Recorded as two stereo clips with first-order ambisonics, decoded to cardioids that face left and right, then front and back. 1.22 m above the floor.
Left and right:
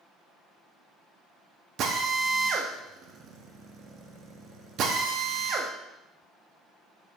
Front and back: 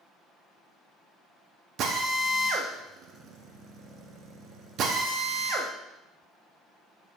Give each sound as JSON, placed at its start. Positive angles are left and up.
{"t": 1.8, "sound": "a drill", "azimuth_deg": -135, "distance_m": 0.9}